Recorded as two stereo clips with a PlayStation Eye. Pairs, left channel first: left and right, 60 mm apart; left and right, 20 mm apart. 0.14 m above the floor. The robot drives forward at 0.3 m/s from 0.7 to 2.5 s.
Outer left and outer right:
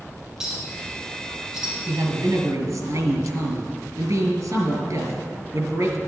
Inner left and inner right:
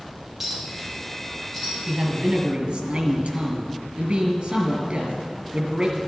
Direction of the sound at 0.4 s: 10° right (ahead or behind).